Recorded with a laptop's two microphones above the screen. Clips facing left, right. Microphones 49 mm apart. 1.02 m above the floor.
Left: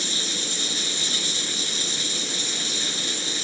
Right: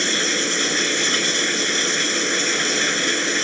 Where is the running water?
55° right (ahead or behind).